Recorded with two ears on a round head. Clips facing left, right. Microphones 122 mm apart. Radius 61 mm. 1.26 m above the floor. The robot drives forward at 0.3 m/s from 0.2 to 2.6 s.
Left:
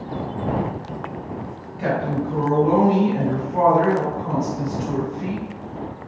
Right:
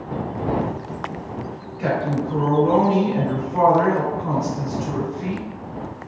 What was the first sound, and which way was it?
A woman speaking, 35° left (ahead or behind).